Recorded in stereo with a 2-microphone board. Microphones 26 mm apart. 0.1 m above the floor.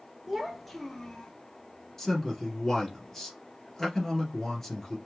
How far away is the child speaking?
About 1.6 m.